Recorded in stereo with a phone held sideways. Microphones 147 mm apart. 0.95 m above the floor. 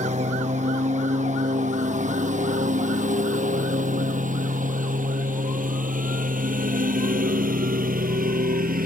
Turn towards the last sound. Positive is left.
turn(degrees=-80)